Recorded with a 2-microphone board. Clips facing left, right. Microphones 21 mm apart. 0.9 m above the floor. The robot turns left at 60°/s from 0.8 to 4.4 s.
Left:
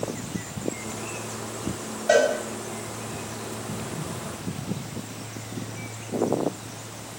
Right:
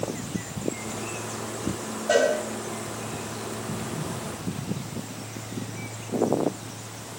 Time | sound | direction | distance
2.1 | a cowbell | 40° left (ahead or behind) | 1.9 m